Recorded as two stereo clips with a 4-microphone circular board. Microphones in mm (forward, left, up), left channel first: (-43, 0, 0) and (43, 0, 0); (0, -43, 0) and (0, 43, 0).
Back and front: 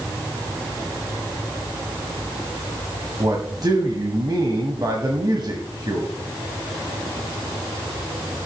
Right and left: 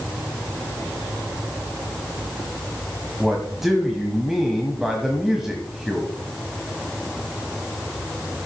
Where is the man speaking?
5° left, 1.5 m.